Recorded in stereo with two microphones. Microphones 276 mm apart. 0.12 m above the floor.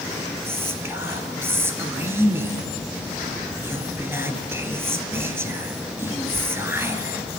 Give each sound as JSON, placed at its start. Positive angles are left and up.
{"t": 0.5, "sound": "whispering", "side_deg": -10, "distance_m": 1.7}